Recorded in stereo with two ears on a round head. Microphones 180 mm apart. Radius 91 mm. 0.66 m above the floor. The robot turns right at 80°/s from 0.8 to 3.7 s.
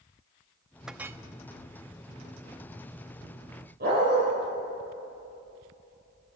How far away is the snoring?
I don't hear snoring.